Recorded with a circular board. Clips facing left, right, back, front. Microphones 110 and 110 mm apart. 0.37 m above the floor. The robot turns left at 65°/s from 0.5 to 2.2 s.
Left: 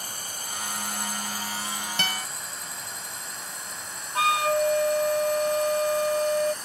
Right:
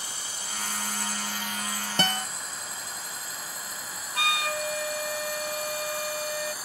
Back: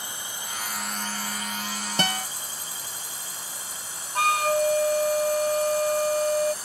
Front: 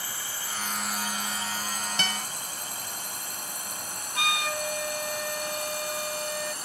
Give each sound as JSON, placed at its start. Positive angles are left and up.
{"t": 0.0, "sound": "a drone", "azimuth_deg": 115}
{"t": 2.0, "sound": "a guitar", "azimuth_deg": -135}
{"t": 4.2, "sound": "a flute", "azimuth_deg": 140}